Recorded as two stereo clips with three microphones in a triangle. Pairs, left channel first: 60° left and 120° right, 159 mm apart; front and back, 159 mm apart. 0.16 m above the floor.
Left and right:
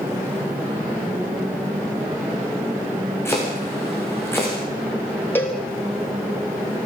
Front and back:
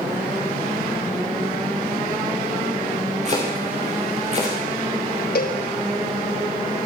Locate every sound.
3.2 s chopping: 135° left, 7.5 m
5.3 s a cowbell: 15° right, 4 m